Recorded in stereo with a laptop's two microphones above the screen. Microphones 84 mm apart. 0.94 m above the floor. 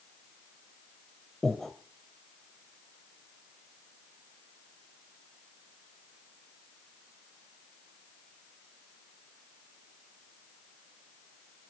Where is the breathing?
5° left (ahead or behind), 1.7 m.